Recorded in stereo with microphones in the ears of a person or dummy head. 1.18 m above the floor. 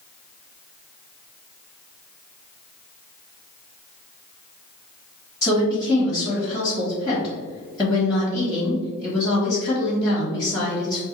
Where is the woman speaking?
5° left (ahead or behind), 1.5 m.